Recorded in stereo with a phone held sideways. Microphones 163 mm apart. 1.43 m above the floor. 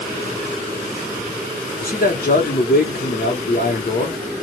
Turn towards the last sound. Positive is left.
turn(degrees=70)  # may be behind; listen again after turning